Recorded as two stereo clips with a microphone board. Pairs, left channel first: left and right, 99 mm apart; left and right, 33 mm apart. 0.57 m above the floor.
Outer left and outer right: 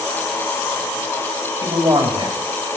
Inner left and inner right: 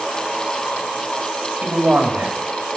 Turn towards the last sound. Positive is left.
turn(degrees=-65)  # may be behind; listen again after turning